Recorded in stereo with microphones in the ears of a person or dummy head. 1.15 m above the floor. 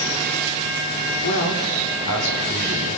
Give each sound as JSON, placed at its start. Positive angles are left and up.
{"t": 1.2, "sound": "a man speaking", "side_deg": 70, "distance_m": 3.0}